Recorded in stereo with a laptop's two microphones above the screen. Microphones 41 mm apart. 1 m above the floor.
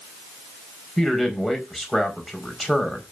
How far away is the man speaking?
About 4.5 m.